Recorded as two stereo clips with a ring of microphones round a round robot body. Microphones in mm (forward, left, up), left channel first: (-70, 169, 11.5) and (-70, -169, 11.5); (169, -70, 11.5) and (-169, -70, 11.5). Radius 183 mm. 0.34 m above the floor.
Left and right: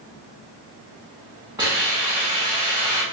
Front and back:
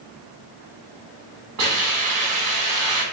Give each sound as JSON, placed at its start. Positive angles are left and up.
{"t": 1.6, "sound": "a hiss", "azimuth_deg": -165, "distance_m": 1.8}